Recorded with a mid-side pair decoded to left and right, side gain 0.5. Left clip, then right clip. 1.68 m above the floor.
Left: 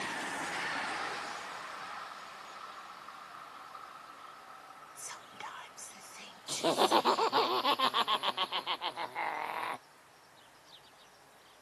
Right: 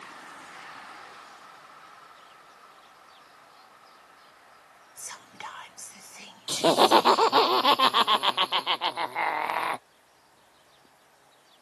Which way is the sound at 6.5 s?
50° right.